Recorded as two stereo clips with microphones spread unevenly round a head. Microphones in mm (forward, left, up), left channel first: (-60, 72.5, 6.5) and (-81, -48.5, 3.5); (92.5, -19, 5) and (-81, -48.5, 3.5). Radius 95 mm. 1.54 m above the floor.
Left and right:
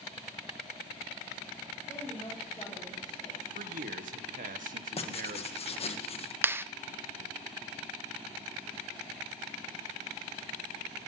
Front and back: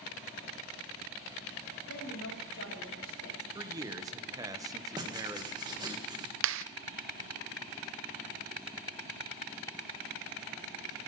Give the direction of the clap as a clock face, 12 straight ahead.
6 o'clock.